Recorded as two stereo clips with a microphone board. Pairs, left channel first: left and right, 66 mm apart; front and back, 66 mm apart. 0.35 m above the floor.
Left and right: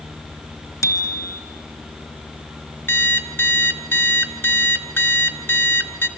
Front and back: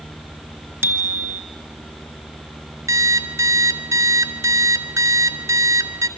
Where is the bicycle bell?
120° left, 3 m.